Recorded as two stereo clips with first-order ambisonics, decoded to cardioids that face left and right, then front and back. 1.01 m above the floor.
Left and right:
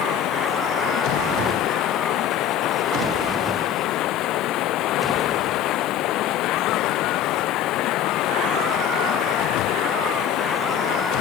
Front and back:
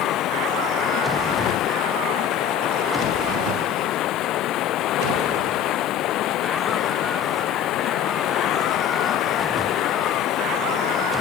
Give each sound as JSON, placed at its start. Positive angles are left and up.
{"t": 0.0, "sound": "running water", "azimuth_deg": 45}